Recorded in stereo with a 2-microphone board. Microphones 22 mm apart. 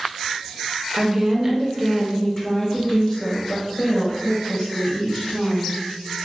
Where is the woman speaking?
30° right (ahead or behind), 0.9 m; by 5.8 s 65° left (ahead or behind), 2 m.